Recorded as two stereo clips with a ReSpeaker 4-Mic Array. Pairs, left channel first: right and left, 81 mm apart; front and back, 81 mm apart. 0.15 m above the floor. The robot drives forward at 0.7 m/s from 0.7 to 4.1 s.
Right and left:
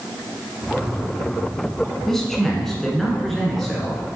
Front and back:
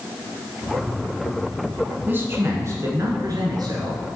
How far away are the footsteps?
I don't hear footsteps.